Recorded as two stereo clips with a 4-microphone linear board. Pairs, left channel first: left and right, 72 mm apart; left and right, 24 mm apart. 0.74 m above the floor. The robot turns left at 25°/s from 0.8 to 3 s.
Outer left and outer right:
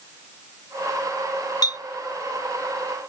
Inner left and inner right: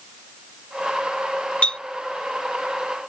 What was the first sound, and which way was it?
A clink, 65° left (ahead or behind).